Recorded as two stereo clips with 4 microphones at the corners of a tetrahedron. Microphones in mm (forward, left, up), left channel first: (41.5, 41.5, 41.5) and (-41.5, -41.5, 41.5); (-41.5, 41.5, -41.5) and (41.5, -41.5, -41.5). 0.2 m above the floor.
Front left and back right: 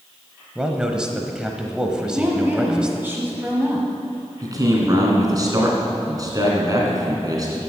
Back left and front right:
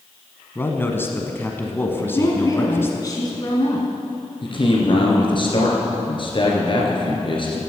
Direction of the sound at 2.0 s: 165° left.